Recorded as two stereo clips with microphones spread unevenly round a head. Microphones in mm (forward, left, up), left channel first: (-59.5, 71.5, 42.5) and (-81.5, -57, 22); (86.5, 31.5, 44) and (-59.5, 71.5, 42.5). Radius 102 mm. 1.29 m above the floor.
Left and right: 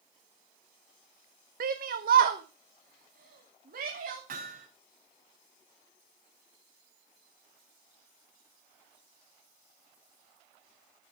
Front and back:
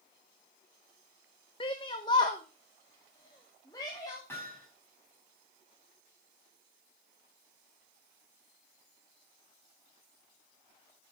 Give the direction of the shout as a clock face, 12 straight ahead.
3 o'clock.